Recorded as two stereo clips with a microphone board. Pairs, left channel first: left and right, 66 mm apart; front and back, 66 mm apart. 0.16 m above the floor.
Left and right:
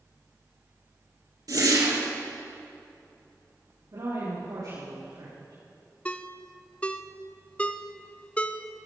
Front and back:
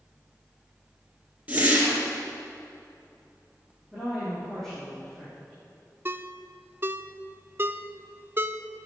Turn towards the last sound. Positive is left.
turn(degrees=150)